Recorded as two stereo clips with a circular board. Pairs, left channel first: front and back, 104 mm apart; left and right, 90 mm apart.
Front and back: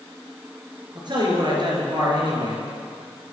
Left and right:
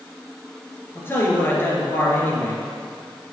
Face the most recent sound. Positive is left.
turn(degrees=150)